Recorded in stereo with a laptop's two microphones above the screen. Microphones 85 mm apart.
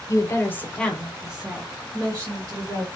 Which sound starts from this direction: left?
A woman speaking, at 0.1 s.